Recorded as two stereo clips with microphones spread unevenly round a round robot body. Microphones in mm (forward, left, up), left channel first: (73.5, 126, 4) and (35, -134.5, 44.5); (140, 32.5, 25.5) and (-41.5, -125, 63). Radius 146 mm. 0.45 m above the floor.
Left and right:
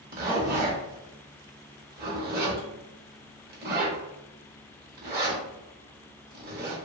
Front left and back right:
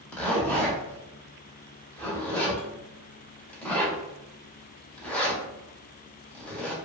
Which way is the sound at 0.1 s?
40° right.